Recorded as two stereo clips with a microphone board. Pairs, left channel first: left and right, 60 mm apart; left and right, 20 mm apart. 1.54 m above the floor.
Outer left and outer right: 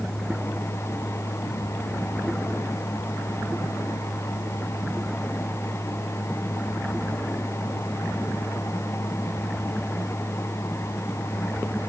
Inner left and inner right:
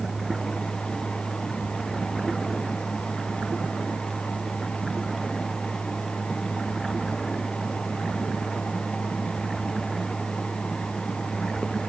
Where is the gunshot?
No gunshot in this recording.